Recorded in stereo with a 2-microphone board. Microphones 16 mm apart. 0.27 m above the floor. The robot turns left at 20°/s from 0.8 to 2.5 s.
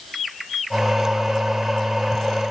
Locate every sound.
Only background noise.